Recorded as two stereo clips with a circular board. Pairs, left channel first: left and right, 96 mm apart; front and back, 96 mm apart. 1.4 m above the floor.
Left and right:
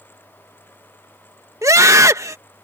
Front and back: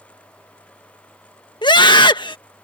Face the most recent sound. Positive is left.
turn(degrees=-35)